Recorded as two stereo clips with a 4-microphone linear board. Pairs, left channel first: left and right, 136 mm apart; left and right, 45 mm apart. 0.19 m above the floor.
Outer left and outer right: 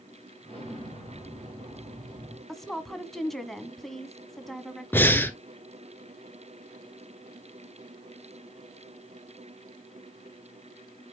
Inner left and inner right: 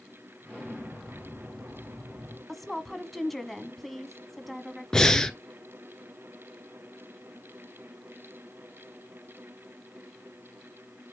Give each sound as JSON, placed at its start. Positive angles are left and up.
{"t": 0.4, "sound": "an explosion", "side_deg": -45, "distance_m": 4.5}
{"t": 2.5, "sound": "a woman speaking", "side_deg": 0, "distance_m": 1.4}
{"t": 4.9, "sound": "breathing", "side_deg": 15, "distance_m": 1.0}